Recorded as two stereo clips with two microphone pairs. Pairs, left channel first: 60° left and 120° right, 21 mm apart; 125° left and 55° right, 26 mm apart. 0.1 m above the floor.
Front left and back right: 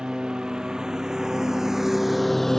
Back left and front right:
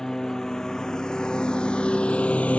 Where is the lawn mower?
170° right; by 2.6 s 125° left.